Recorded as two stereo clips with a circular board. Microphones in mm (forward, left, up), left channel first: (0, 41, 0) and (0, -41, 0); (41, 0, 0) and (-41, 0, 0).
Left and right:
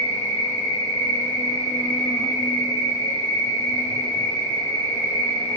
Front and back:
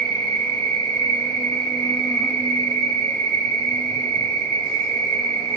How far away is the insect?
About 1.2 m.